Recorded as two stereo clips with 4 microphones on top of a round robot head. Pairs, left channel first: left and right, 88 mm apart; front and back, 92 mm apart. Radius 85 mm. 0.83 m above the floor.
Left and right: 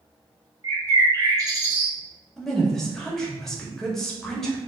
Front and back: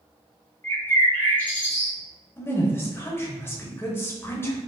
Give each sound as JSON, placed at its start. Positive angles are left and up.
{"t": 0.6, "sound": "a bird", "azimuth_deg": -65, "distance_m": 1.2}
{"t": 2.4, "sound": "a woman speaking", "azimuth_deg": 10, "distance_m": 0.9}